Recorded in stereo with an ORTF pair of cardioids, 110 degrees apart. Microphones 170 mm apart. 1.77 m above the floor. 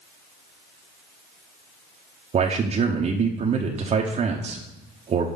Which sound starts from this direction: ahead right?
A man speaking, at 2.3 s.